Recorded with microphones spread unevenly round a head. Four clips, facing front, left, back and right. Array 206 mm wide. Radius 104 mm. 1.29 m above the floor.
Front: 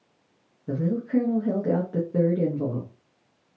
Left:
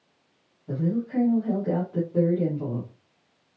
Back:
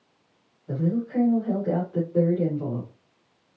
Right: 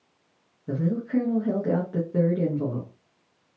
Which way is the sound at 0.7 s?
40° right.